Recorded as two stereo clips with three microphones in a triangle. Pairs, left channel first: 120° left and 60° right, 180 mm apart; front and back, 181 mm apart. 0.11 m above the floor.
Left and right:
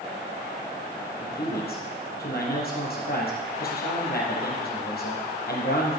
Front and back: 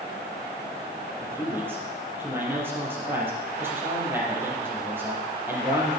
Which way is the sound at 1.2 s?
105° left.